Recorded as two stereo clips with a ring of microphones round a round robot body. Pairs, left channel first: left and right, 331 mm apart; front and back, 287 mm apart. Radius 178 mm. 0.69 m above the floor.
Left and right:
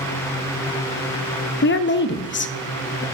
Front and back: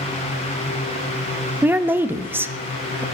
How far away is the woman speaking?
About 0.7 m.